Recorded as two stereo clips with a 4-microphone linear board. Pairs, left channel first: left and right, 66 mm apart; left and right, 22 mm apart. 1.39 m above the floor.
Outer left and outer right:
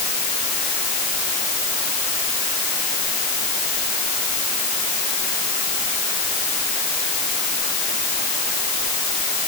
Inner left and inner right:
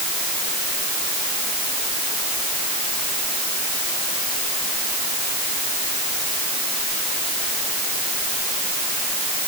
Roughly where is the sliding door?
No sliding door in this recording.